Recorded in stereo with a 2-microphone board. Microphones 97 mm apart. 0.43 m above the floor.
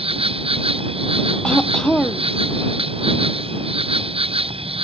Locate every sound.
0.0 s an insect: 75° right (ahead or behind)
1.4 s throat clearing: 5° left (ahead or behind)